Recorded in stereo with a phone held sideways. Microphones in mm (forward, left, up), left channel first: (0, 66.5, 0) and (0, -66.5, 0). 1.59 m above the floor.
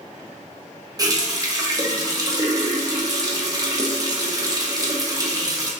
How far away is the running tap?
About 0.7 m.